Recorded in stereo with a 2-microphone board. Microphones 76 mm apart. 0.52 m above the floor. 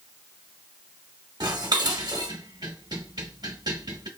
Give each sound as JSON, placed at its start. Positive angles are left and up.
{"t": 1.4, "sound": "dishes clattering", "side_deg": -60, "distance_m": 1.2}